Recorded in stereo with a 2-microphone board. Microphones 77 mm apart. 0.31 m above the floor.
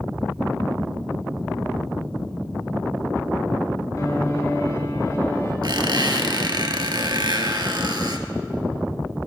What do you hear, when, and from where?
4.0 s a piano: 45° left (ahead or behind), 2 m
5.6 s a squeak: 65° right (ahead or behind), 1.1 m